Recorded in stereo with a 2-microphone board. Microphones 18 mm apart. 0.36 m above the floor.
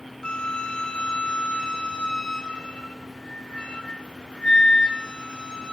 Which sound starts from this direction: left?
A flute, at 0.2 s.